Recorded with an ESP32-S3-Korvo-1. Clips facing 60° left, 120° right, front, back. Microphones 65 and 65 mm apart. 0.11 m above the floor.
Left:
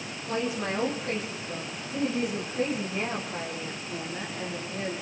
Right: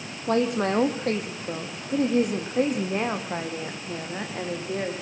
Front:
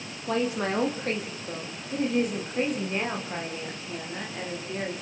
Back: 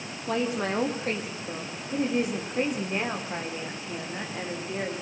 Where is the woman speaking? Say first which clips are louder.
Right 7 dB, front 1 dB; 90° right, 5 m; by 4.9 s 100° right, 9.5 m.